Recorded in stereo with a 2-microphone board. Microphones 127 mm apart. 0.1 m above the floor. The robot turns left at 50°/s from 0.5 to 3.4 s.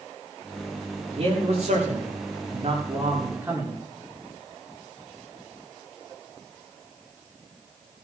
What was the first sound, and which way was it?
A man speaking, 50° right.